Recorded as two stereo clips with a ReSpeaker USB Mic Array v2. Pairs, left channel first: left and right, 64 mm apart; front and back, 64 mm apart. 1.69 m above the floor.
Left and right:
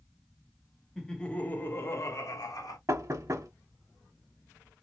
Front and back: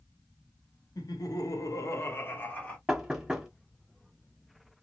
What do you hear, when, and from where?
0.9 s laughter: 5° left, 1.0 m; by 2.8 s 70° left, 1.1 m
2.9 s knocking: 105° right, 0.9 m